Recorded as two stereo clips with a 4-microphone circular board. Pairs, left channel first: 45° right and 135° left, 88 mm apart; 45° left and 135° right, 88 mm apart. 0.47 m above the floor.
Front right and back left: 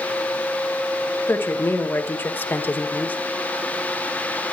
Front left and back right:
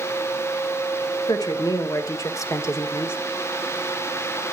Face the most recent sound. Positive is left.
turn(degrees=10)